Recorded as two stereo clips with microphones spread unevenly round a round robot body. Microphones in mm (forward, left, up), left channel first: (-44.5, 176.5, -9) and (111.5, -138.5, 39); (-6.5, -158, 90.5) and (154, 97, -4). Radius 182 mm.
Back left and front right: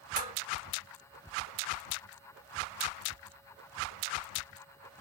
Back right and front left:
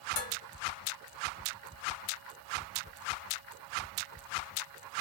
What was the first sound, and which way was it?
Dishes clattering, 135° right.